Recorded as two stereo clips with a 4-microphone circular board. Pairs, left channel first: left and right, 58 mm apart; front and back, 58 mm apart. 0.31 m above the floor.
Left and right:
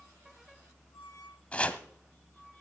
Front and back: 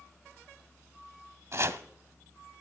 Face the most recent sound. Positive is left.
turn(degrees=155)